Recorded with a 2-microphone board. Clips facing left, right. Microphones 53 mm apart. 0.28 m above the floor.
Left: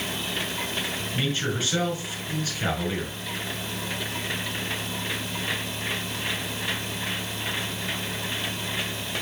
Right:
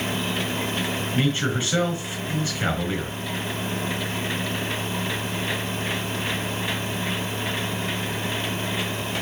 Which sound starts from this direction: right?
A man speaking, at 1.1 s.